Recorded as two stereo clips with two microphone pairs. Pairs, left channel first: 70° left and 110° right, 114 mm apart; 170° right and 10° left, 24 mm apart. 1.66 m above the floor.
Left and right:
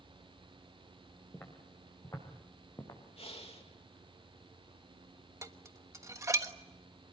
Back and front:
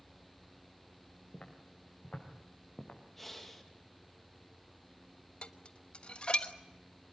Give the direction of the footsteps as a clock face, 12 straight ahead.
7 o'clock.